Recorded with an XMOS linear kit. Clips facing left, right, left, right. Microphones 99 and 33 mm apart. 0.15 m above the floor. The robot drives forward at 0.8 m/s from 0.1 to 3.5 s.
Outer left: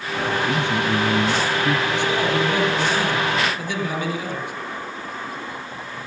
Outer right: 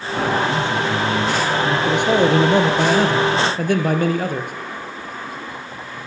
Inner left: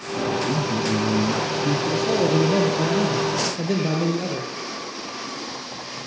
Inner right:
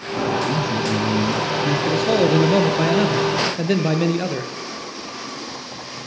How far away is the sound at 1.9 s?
About 3 m.